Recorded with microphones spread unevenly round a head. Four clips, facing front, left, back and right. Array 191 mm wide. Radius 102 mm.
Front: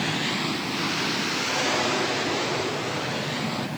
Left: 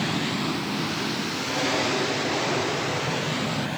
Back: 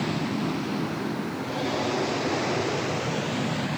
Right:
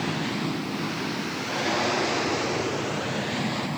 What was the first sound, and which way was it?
Only background noise.